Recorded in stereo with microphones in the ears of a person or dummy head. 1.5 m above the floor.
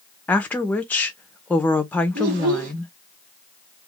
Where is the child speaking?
65° right (ahead or behind), 1.1 m.